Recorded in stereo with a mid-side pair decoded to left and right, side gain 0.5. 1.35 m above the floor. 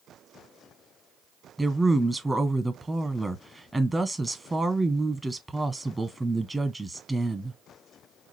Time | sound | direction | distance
1.6 | a woman speaking | 15° right | 1.1 m